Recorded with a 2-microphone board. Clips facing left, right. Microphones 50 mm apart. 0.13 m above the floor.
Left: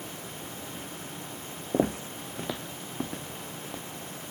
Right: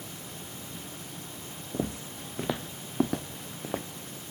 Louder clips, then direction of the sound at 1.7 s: Left 7 dB; 60° left (ahead or behind).